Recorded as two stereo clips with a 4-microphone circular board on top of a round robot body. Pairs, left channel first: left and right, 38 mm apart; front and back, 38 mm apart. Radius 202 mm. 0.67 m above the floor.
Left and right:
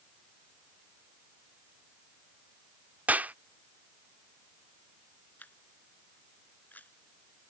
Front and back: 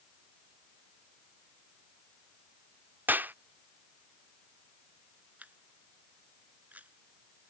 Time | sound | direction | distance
3.1 | a clap | 140° right | ?
5.4 | a camera shutter | 135° left | ?